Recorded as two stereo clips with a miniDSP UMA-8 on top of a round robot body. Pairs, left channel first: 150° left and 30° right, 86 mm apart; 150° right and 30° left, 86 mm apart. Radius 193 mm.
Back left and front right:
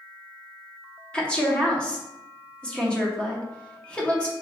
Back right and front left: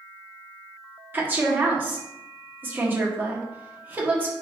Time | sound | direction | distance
1.1 | a woman speaking | 80° left | 1.6 m